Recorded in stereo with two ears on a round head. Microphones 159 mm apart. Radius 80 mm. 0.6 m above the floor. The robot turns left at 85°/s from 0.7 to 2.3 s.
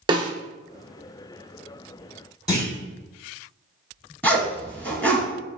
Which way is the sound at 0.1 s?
25° right (ahead or behind).